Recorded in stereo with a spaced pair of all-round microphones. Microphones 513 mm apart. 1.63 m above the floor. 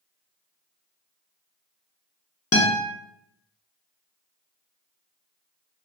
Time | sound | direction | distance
2.5 | a guitar | 30° left (ahead or behind) | 0.5 m